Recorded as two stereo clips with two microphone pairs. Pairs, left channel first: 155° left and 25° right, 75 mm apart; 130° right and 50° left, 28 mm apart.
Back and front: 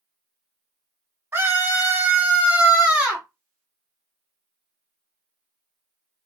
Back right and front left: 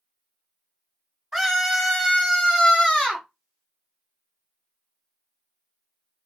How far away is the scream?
About 1.5 m.